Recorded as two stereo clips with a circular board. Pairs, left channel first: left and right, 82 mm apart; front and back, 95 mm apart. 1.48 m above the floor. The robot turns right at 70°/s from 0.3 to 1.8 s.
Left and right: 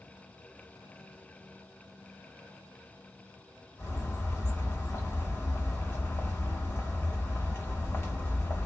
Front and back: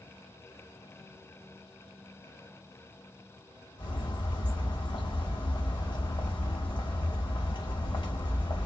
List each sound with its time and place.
3.8 s a bird: 30° left, 1.2 m